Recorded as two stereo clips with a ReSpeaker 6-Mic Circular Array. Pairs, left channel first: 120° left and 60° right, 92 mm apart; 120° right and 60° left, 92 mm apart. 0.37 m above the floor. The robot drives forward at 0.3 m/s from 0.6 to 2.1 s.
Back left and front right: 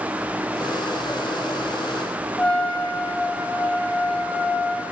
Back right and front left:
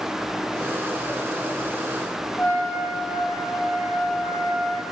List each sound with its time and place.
2.4 s a trumpet: 160° right, 1.8 m